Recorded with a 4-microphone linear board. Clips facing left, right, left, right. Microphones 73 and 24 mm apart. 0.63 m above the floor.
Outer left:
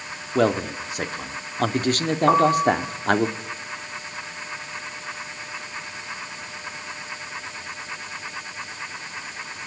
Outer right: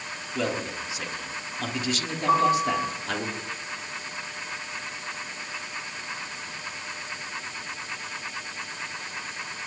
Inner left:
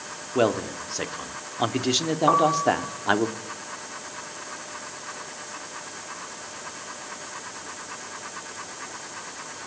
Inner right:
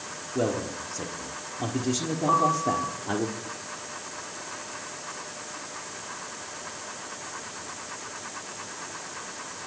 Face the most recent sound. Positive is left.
turn(degrees=60)  # may be behind; listen again after turning